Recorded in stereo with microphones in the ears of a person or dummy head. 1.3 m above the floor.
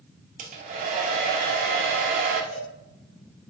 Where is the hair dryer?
40° right (ahead or behind), 0.6 m.